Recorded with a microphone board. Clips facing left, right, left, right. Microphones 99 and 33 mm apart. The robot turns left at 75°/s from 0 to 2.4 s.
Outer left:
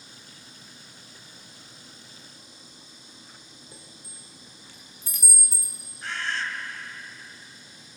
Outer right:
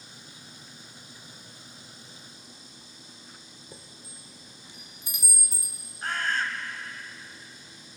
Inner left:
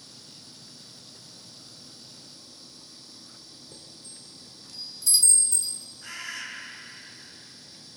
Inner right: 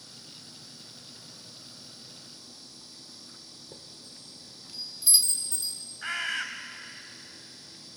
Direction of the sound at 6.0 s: 50° right (ahead or behind).